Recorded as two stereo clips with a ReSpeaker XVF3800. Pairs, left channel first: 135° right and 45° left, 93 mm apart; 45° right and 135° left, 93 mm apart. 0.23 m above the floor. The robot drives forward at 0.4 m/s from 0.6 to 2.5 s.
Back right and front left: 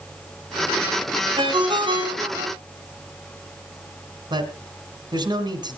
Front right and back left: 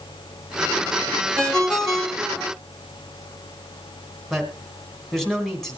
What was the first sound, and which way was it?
A ringtone, 35° left.